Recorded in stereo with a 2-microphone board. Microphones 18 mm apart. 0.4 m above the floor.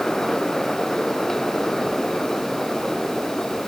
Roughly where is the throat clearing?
No throat clearing in this recording.